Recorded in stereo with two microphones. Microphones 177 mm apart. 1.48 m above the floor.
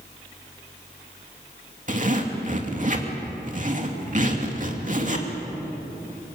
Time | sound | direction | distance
1.9 | a zipper | 45° right (ahead or behind) | 2.5 m